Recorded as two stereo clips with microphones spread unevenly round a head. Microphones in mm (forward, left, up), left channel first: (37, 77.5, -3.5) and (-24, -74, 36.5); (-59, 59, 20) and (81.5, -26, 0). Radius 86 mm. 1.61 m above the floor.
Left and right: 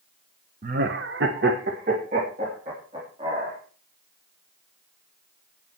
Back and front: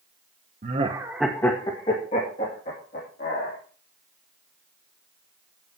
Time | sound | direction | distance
0.6 | laughter | 80° right | 1.1 m